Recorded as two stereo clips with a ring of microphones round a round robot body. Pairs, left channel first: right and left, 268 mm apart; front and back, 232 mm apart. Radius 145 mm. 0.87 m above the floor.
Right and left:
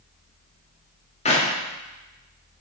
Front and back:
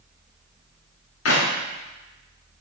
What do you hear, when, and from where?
1.2 s a clap: 25° right, 1.8 m